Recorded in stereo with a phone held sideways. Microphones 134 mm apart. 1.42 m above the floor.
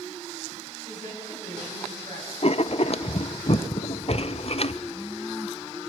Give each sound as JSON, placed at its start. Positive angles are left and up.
{"t": 0.8, "sound": "a woman speaking", "side_deg": -80, "distance_m": 10.0}
{"t": 2.4, "sound": "writing", "side_deg": 50, "distance_m": 0.5}